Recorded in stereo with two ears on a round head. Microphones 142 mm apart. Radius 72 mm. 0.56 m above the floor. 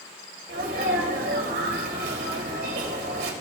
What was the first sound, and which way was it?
A sneeze, 70° right (ahead or behind).